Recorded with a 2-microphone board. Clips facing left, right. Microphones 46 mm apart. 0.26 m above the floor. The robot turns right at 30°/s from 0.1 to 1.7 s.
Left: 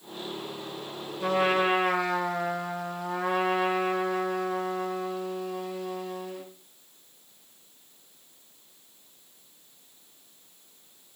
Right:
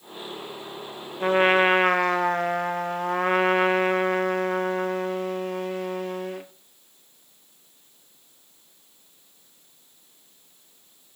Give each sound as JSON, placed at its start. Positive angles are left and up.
{"t": 1.2, "sound": "a trumpet", "side_deg": -35, "distance_m": 0.9}